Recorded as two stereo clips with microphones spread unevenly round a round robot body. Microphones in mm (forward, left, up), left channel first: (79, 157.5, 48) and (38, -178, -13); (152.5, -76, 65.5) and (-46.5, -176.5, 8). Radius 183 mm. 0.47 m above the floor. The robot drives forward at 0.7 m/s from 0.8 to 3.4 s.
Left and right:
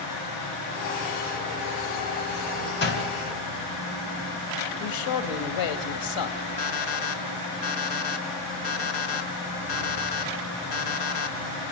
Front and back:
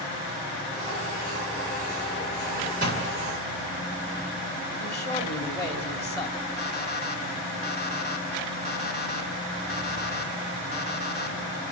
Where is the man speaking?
120° left, 2.5 m.